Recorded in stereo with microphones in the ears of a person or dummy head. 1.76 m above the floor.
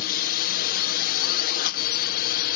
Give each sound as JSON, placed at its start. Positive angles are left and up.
{"t": 0.0, "sound": "a drone", "side_deg": 50}